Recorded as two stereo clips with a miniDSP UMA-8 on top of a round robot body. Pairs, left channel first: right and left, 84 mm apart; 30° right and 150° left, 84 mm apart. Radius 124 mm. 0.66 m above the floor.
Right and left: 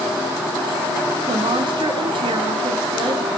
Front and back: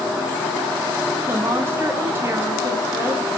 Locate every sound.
1.3 s a woman speaking: 90° left, 1.1 m